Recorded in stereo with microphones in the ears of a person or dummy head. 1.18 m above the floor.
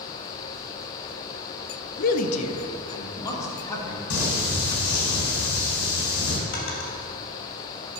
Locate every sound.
2.0 s a man speaking: 55° left (ahead or behind), 0.7 m; by 4.0 s 15° left (ahead or behind), 2.0 m
4.1 s singing: 80° left, 3 m
6.5 s a drawer: 60° left (ahead or behind), 2.5 m